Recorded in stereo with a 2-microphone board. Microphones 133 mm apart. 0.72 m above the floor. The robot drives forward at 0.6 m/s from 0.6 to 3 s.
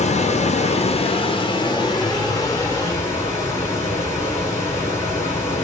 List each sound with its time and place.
0.0 s running water: 55° left (ahead or behind), 0.8 m; by 5.6 s 20° left (ahead or behind), 1.9 m